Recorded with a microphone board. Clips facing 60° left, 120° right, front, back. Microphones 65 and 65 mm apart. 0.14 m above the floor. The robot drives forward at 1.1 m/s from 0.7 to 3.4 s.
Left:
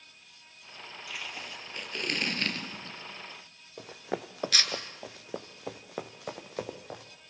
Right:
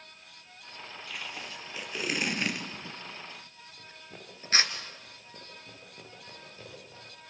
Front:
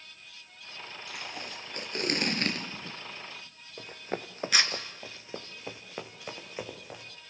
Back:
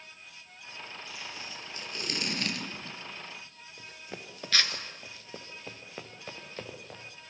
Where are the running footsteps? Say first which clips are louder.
Left 15 dB, front 8 dB; 45° left, 1.5 m; by 7.0 s 80° left, 3 m.